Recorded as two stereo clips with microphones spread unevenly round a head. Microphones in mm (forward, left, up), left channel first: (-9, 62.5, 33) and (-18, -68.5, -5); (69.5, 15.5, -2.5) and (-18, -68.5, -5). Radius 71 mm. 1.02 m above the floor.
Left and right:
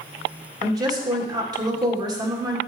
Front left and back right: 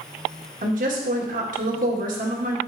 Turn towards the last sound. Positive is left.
turn(degrees=-145)